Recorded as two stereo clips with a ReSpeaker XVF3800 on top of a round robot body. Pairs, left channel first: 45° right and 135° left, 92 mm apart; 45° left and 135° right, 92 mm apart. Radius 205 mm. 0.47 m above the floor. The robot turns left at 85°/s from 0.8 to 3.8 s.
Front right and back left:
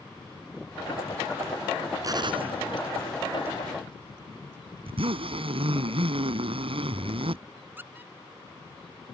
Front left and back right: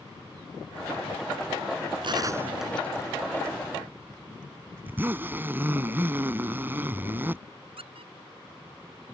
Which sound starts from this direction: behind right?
A squeak, at 7.8 s.